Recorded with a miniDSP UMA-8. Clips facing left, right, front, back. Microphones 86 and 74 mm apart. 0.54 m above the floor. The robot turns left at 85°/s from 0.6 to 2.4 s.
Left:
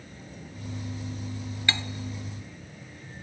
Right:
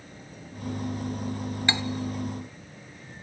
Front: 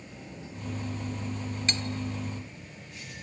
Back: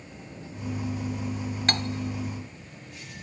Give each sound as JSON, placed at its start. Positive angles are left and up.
{"t": 1.7, "sound": "cutlery clinking", "azimuth_deg": -155, "distance_m": 0.7}